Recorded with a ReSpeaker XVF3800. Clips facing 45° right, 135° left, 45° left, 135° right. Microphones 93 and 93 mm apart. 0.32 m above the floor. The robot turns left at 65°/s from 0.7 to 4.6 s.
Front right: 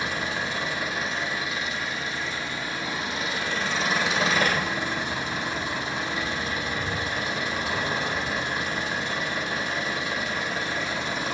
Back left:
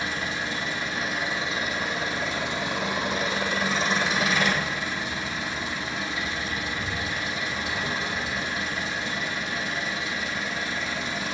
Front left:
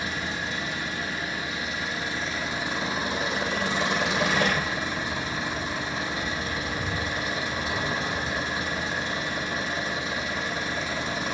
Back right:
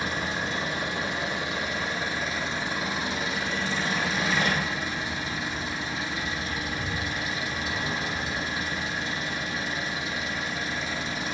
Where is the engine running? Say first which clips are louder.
Front right 1 dB, back right 2 dB; 110° right, 4 m; by 11.3 s 5° right, 4 m.